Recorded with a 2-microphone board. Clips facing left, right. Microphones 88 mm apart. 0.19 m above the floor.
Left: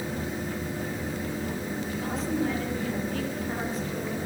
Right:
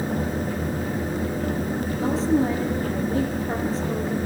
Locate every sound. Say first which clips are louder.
2.0 s a woman speaking: right 8 dB; 30° right (ahead or behind), 6 m